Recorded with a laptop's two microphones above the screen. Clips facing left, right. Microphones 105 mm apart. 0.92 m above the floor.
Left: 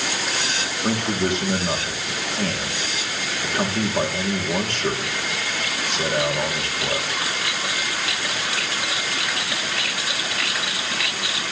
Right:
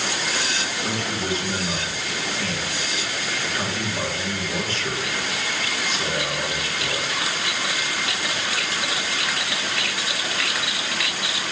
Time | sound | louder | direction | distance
0.8 | a man speaking | left 6 dB | 60° left (ahead or behind) | 1.7 m